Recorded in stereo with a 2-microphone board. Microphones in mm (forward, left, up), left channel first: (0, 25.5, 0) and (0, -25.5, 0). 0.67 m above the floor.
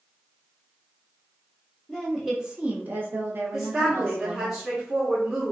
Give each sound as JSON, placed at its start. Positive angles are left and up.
{"t": 1.9, "sound": "a woman speaking", "side_deg": 5, "distance_m": 0.8}
{"t": 3.5, "sound": "a woman speaking", "side_deg": -5, "distance_m": 1.0}